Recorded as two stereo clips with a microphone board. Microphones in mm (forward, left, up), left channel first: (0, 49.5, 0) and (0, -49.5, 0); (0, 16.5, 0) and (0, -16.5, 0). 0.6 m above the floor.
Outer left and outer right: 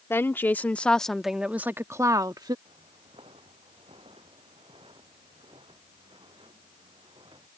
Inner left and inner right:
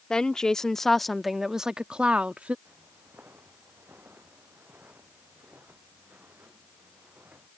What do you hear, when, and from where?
0.1 s a woman speaking: 25° left (ahead or behind); by 2.5 s 45° right (ahead or behind)
2.6 s footsteps: 70° right (ahead or behind); by 7.5 s 55° right (ahead or behind)